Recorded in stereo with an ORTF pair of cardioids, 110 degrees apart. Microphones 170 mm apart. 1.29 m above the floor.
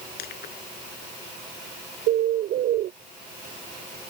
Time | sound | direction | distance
0.2 | crushing | 65° left | ?
2.1 | a bird | 65° right | ?